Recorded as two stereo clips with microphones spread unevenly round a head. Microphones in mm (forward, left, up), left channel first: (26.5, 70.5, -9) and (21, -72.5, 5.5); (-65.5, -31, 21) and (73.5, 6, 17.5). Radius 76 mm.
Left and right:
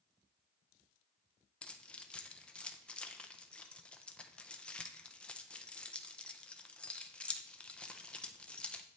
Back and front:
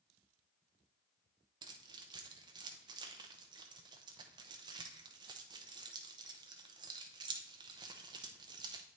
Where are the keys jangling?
5° left, 0.5 m.